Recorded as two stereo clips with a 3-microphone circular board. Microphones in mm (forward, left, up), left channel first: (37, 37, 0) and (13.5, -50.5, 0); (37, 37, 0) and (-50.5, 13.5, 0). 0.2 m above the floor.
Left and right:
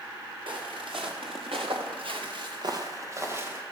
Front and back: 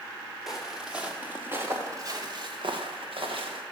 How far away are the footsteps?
About 3.5 m.